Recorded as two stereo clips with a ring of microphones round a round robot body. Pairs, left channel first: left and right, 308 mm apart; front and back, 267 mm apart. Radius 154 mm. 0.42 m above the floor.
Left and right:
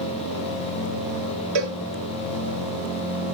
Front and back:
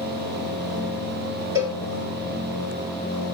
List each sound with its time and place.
1.6 s a cowbell: 100° right, 1.7 m